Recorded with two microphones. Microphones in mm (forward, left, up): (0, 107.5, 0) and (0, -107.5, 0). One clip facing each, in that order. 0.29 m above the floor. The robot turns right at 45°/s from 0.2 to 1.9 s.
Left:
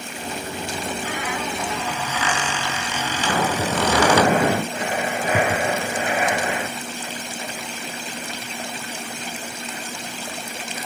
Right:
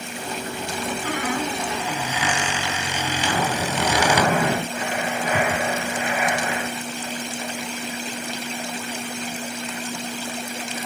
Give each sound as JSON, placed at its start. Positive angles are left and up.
{"t": 1.1, "sound": "a squeak", "azimuth_deg": -50, "distance_m": 2.0}
{"t": 3.2, "sound": "breathing", "side_deg": 40, "distance_m": 2.5}